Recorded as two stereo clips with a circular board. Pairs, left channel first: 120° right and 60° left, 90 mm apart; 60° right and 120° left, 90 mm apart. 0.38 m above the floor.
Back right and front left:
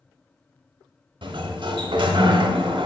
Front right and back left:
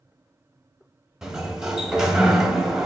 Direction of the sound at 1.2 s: 35° left.